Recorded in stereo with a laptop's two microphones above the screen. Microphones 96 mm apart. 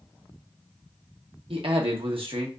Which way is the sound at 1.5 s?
70° right (ahead or behind).